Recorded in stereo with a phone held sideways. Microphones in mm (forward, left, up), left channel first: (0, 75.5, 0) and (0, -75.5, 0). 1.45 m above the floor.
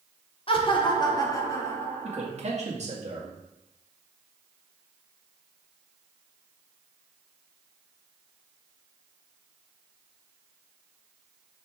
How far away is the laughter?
About 1.4 m.